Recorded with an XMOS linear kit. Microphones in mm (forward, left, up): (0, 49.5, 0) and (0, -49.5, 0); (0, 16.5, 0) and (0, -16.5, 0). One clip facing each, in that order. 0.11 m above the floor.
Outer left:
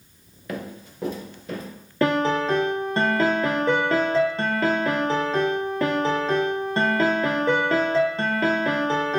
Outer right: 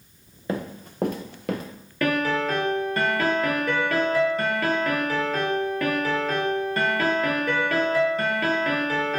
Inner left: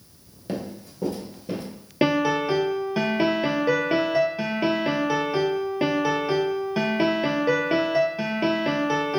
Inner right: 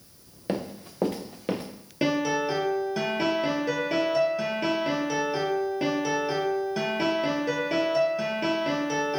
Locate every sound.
0.5 s running footsteps: 25° right (ahead or behind), 0.7 m; by 1.6 s 75° right (ahead or behind), 1.0 m
2.0 s a piano: 30° left (ahead or behind), 0.6 m